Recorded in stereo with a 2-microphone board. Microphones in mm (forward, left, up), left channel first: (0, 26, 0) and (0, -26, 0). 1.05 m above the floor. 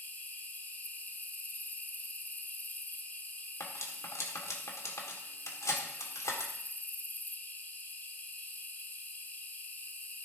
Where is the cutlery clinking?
75° left (ahead or behind), 1.5 m.